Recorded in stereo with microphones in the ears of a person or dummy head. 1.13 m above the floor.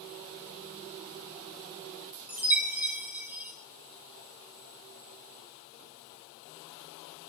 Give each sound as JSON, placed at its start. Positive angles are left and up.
{"t": 2.3, "sound": "a chime", "side_deg": -5, "distance_m": 1.4}